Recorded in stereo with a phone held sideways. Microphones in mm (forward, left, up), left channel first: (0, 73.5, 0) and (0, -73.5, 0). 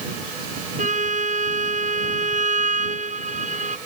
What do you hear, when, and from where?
0.8 s a violin: 55° right (ahead or behind)